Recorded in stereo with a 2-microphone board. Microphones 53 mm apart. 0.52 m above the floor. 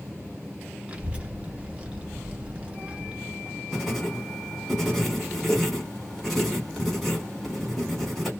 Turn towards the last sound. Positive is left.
turn(degrees=5)  # may be behind; listen again after turning